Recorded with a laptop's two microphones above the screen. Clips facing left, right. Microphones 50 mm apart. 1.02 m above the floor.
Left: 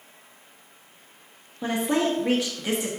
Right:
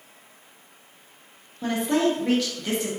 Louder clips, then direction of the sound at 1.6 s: Right 1 dB; 15° left (ahead or behind).